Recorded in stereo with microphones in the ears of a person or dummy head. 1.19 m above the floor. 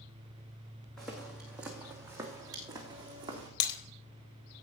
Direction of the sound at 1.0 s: 5° left (ahead or behind).